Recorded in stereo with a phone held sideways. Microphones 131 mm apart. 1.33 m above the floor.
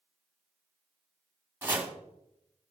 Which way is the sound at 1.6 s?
15° right (ahead or behind).